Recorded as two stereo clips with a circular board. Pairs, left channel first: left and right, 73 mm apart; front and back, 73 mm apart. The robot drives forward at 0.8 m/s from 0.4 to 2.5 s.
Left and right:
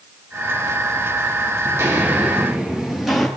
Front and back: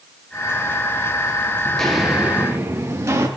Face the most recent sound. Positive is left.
turn(degrees=175)